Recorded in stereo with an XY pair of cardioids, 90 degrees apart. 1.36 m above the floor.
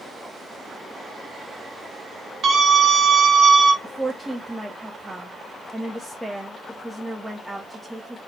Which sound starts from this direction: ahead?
A woman speaking, at 3.8 s.